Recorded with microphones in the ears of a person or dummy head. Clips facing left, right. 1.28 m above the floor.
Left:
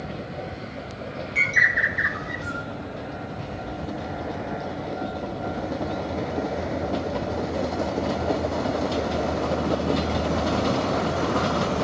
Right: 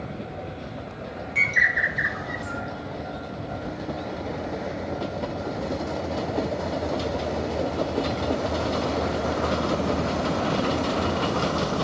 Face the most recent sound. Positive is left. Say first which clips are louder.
# left 1 dB
turn(degrees=0)  # may be behind; listen again after turning